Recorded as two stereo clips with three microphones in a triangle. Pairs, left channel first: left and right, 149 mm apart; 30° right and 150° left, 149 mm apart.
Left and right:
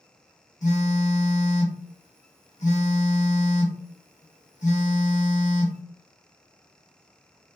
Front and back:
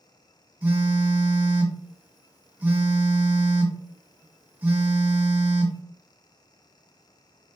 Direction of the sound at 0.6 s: 75° left.